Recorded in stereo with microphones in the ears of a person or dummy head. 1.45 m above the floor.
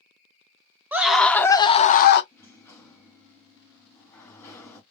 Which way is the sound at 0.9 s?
10° right (ahead or behind).